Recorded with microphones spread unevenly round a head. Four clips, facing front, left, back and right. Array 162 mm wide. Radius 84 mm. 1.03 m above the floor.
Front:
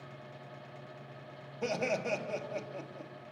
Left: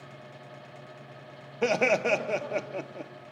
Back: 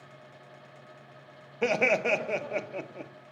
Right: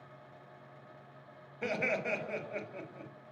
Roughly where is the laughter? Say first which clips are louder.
Left 10 dB, back 7 dB; behind left.